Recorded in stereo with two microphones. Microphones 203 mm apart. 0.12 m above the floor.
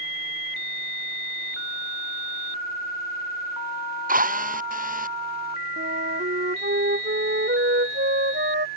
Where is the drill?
45° right (ahead or behind).